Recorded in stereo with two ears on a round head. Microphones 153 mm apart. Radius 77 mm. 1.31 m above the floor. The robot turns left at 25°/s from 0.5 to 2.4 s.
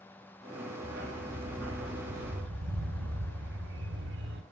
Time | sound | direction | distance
0.8 | a dog barking | 60° right | 3.5 m